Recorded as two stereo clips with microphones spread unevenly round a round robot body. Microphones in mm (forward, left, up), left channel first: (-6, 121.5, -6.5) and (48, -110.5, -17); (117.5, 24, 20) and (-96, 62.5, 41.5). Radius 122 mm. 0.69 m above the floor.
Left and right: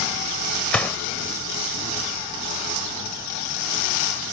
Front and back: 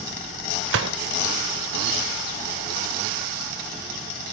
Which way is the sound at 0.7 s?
175° right.